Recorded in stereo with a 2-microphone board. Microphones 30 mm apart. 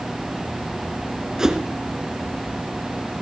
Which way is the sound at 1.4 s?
20° right (ahead or behind).